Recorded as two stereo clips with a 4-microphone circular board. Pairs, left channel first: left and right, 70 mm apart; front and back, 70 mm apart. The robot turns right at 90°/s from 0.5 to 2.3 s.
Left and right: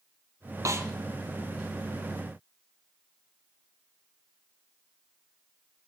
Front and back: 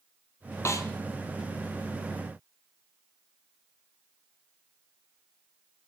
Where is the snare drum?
50° right, 1.2 m; by 0.9 s 30° right, 1.2 m.